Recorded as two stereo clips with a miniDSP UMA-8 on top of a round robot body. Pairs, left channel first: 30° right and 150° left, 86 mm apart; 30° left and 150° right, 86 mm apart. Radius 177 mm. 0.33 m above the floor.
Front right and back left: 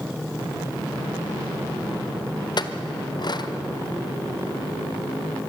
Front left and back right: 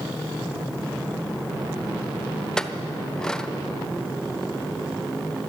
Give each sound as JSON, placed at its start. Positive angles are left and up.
{"t": 2.6, "sound": "a clink", "azimuth_deg": -50, "distance_m": 1.3}